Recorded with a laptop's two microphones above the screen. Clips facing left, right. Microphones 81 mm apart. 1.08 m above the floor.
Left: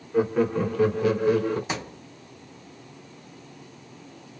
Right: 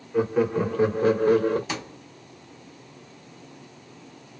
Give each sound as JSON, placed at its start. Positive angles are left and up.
{"t": 0.1, "sound": "laughter", "side_deg": 5, "distance_m": 1.1}
{"t": 1.7, "sound": "a thud", "side_deg": 20, "distance_m": 0.7}